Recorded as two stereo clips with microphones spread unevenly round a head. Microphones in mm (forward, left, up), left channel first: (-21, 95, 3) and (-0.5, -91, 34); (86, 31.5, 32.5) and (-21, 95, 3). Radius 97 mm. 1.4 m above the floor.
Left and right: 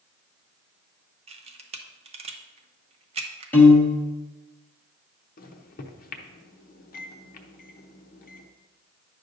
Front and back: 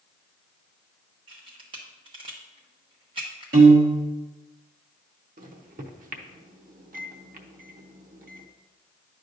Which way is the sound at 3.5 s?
Straight behind.